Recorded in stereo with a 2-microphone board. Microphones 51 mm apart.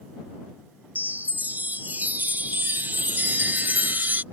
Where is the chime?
40° right (ahead or behind).